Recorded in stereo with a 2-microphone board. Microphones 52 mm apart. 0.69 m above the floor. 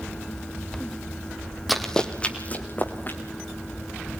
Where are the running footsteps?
Centre (ahead or behind), 1.4 m; by 3.2 s 40° left (ahead or behind), 3 m.